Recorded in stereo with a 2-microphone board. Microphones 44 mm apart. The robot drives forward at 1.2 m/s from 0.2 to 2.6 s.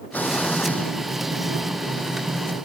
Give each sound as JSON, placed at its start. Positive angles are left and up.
{"t": 0.1, "sound": "an explosion", "side_deg": 40}